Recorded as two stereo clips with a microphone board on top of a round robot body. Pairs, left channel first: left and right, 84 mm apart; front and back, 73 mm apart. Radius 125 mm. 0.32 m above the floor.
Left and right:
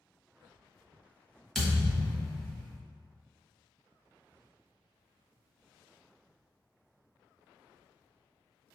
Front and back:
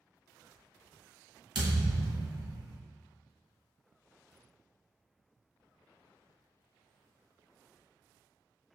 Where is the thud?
175° left, 1.4 m.